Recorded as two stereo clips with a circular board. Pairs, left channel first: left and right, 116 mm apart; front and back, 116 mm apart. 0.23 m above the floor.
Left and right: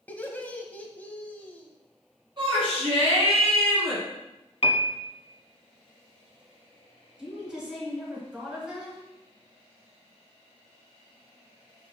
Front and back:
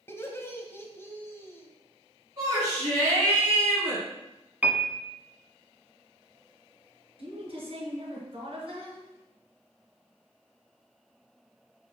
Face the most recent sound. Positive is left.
turn(degrees=-170)